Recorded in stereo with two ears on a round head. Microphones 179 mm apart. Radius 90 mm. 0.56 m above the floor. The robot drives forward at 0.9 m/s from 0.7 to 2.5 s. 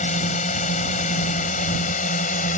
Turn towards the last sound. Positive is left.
turn(degrees=40)  # may be behind; listen again after turning